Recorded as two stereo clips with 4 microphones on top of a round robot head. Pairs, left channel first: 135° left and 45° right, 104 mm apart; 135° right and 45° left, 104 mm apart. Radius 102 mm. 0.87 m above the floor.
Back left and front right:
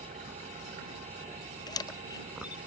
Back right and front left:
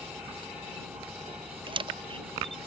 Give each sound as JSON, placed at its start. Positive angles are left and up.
{"t": 0.0, "sound": "an engine running", "azimuth_deg": -40}
{"t": 1.7, "sound": "a camera shutter", "azimuth_deg": 85}